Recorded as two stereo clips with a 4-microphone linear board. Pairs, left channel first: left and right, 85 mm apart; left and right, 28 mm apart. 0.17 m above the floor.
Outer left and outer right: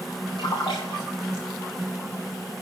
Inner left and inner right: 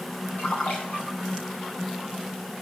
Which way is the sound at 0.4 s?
60° left (ahead or behind).